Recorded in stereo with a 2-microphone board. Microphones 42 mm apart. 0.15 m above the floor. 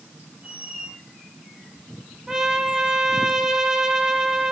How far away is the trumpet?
About 1.8 m.